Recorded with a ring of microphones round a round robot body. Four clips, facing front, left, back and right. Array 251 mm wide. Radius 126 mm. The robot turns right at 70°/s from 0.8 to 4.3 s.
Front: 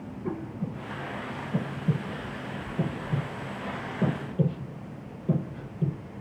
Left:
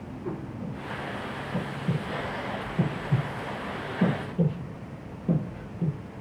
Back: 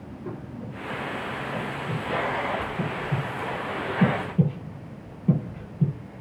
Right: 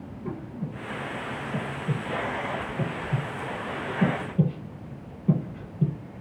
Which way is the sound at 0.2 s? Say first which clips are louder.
Even, front 4 dB; 35° right.